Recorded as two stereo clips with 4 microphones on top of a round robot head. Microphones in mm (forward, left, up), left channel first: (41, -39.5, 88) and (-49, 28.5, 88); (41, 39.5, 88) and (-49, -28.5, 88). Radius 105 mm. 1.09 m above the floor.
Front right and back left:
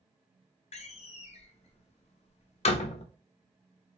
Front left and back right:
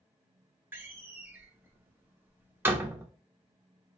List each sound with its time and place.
0.7 s a door slam: 70° right, 0.5 m